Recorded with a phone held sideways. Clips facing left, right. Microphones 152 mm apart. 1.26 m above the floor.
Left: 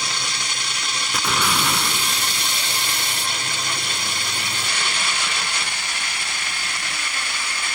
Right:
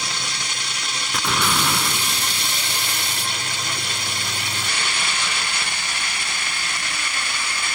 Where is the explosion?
Centre (ahead or behind).